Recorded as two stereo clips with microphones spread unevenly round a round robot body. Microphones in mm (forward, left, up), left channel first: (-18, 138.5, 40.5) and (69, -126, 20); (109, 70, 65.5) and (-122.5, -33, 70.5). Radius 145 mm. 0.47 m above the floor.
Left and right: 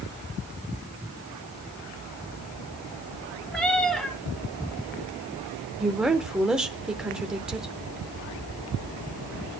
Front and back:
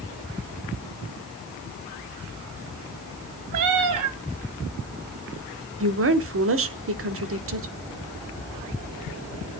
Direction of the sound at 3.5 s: 165° right.